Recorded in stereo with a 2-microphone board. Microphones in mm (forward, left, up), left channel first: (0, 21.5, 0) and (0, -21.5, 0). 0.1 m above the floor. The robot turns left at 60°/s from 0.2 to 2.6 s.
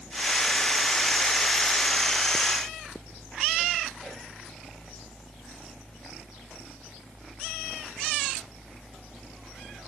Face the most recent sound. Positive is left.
No sound to turn to.